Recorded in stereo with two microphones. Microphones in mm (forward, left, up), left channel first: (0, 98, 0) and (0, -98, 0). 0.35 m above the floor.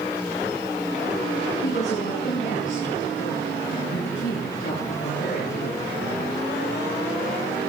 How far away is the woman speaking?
About 4.5 m.